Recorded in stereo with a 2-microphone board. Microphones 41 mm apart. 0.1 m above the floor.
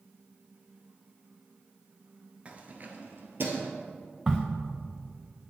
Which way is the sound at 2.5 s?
30° right (ahead or behind).